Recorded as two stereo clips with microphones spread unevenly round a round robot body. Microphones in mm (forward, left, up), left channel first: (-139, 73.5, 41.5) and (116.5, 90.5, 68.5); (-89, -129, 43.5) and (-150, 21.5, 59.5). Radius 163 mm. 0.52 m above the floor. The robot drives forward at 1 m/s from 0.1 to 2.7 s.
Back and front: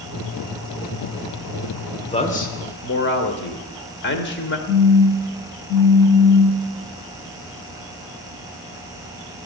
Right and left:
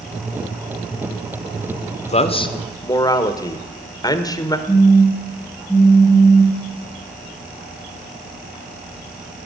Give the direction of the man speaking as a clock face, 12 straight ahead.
4 o'clock.